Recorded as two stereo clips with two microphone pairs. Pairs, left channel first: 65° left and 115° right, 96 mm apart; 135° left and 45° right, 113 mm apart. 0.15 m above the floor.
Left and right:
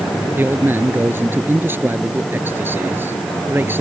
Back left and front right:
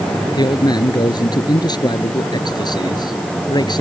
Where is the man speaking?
Straight behind.